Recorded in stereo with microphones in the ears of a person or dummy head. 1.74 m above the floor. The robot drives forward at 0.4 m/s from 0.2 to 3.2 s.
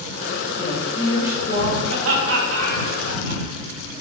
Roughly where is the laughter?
Right.